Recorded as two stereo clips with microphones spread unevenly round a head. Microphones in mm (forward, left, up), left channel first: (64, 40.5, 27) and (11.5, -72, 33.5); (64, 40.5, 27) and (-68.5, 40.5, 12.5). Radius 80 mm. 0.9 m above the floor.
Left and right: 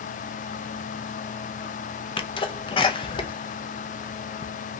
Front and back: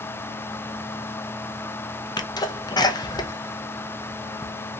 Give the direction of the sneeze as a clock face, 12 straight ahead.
10 o'clock.